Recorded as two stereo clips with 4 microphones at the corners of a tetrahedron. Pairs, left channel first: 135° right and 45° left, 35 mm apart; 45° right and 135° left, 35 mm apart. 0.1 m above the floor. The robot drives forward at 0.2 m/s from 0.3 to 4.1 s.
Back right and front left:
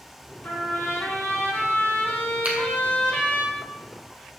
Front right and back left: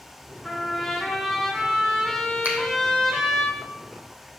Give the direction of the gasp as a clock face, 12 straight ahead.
I don't hear a gasp.